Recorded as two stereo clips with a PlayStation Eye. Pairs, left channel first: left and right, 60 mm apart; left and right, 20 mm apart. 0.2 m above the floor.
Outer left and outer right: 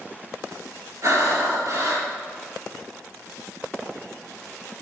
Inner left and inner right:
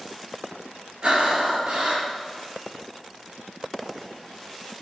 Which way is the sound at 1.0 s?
55° right (ahead or behind).